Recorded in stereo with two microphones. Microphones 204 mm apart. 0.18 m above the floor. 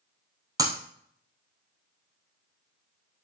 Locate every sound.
0.6 s breaking glass: 20° right (ahead or behind), 1.8 m